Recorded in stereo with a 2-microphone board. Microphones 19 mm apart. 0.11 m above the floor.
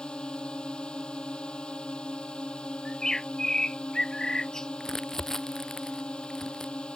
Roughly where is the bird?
Left.